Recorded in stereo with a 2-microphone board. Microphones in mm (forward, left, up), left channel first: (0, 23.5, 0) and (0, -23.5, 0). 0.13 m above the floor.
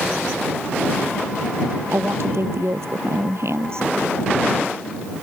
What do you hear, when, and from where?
1.9 s a woman speaking: 70° right (ahead or behind)